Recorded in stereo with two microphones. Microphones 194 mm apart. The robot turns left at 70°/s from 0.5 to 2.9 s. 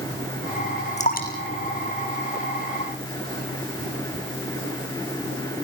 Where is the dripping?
35° left (ahead or behind), 2 m; by 3.0 s 10° left (ahead or behind), 2 m.